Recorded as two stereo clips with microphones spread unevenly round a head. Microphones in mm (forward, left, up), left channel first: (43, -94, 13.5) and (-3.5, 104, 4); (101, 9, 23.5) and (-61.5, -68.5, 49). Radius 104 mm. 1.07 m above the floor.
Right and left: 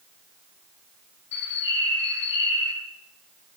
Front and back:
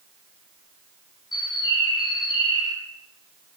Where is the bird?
45° right, 5 m.